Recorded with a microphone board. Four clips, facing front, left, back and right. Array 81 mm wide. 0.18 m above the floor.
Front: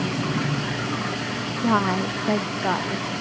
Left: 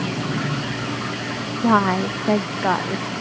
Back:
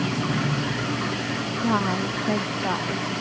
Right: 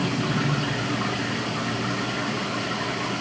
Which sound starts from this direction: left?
A woman speaking, at 1.6 s.